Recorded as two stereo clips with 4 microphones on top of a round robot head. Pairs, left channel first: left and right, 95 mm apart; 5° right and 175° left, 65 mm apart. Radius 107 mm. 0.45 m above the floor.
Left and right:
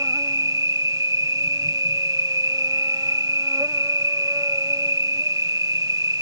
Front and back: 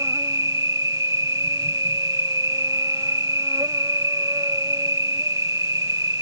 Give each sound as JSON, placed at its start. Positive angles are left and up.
{"t": 0.0, "sound": "an insect", "azimuth_deg": -145}